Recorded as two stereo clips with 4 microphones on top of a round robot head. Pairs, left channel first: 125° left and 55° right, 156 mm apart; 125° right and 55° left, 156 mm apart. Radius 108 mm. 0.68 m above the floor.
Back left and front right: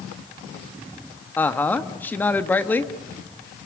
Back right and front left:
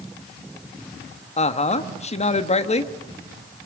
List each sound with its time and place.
1.4 s a woman speaking: 155° right, 1.4 m